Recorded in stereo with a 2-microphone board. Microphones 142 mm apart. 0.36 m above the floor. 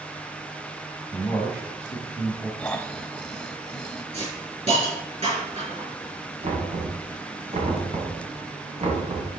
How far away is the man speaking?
About 2.5 m.